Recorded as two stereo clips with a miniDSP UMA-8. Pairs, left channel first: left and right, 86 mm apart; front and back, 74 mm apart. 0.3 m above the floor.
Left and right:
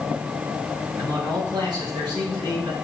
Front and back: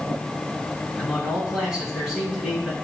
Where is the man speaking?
105° right, 4 m.